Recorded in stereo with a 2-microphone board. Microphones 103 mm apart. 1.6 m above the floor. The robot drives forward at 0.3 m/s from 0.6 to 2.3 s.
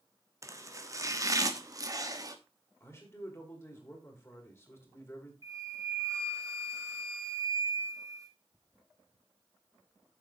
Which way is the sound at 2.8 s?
25° left (ahead or behind).